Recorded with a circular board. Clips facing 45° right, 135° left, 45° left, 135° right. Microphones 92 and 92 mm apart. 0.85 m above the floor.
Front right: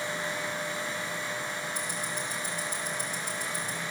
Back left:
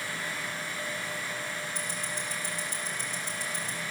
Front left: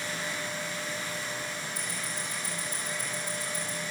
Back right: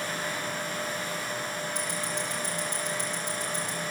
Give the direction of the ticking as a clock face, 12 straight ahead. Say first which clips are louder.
Front right 2 dB, back right 5 dB; 4 o'clock.